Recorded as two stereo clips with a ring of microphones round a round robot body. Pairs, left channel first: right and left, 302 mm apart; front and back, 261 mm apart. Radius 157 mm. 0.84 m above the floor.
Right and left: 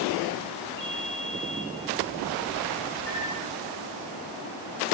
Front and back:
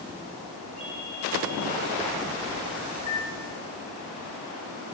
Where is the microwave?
60° left, 6 m.